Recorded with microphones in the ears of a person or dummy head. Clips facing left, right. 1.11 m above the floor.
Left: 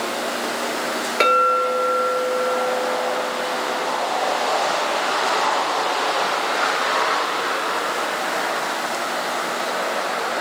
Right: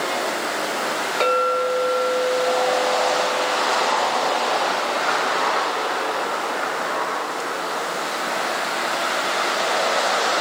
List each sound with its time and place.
1.2 s a clink: 30° left (ahead or behind), 1.4 m